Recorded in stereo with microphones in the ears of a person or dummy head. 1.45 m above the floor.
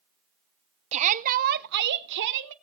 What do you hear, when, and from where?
0.9 s a shout: 35° right (ahead or behind), 0.8 m; by 2.5 s 70° right (ahead or behind), 1.5 m